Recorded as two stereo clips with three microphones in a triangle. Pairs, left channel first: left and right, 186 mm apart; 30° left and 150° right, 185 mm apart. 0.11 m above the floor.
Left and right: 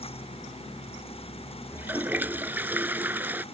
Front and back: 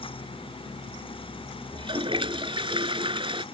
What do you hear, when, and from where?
1.7 s a toilet flushing: 160° right